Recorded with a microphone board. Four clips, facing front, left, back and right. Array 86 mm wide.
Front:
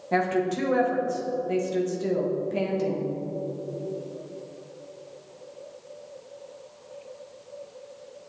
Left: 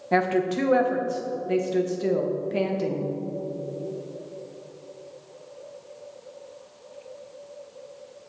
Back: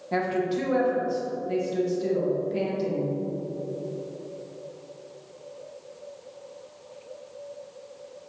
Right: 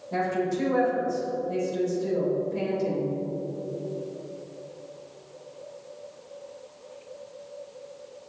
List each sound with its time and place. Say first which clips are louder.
0.1 s a woman speaking: left 4 dB, front 1 dB; 80° left, 1.2 m